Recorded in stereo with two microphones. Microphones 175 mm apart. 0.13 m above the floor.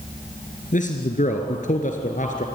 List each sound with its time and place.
0.7 s a man speaking: 50° left (ahead or behind), 2 m